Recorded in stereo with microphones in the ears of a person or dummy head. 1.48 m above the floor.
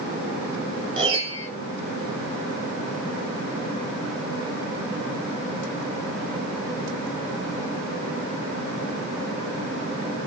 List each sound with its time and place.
1.0 s a piano: 35° right (ahead or behind), 0.8 m